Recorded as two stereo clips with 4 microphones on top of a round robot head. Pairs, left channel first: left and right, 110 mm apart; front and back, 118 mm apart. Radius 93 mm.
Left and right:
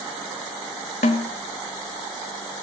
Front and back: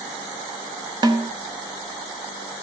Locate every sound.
1.0 s a snare drum: 130° left, 1.1 m